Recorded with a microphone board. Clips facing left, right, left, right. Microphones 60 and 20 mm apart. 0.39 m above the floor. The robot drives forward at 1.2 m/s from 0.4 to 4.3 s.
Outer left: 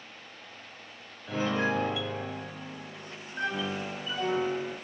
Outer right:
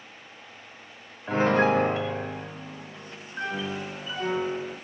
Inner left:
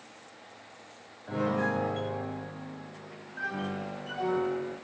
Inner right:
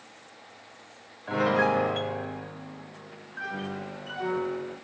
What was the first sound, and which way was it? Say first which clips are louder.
A piano: outer right 7 dB, inner right 5 dB; 45° right (ahead or behind).